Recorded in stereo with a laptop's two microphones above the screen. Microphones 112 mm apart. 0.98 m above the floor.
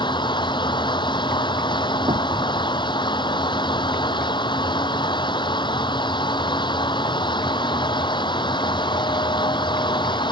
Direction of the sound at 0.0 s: 45° left (ahead or behind).